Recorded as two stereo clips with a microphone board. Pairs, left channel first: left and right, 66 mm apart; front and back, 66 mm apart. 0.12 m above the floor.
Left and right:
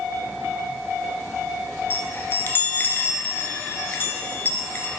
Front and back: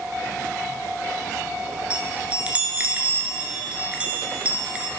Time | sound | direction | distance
1.9 | a chime | 120° left | 1.1 m